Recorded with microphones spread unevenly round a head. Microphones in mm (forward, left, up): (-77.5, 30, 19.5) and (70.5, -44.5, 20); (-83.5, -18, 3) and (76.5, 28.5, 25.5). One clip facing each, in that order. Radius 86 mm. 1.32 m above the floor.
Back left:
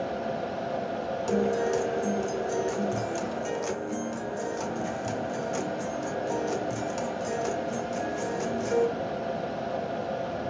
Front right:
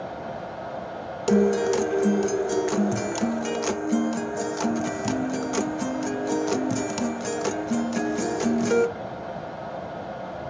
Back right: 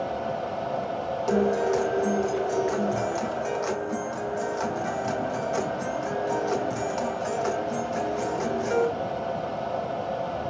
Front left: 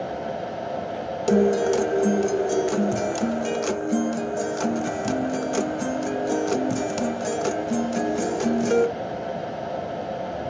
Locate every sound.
0.0 s a fan: 90° left, 0.9 m
1.3 s a guitar: 20° right, 0.6 m